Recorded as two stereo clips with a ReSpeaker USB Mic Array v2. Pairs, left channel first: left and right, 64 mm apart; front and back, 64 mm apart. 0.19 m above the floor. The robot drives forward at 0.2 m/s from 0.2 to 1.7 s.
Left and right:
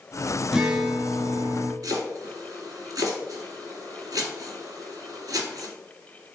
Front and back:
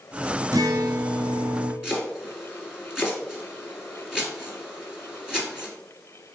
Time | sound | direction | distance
0.5 | a guitar | 170° right | 0.6 m
1.8 | chopping | 105° right | 1.7 m